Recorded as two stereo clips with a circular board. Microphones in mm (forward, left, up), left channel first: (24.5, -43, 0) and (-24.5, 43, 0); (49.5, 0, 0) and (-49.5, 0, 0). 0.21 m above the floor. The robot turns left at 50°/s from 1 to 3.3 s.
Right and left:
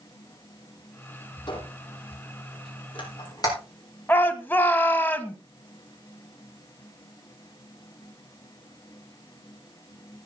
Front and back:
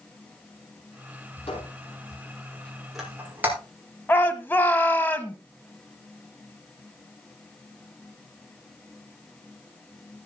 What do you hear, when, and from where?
1.5 s a squeak: 15° right, 7 m; by 3.6 s 110° right, 7 m
4.1 s a shout: 30° right, 1.5 m